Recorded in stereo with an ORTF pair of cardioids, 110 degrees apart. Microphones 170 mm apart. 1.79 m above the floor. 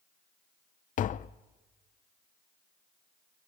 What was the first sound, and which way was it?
Tapping, 50° left.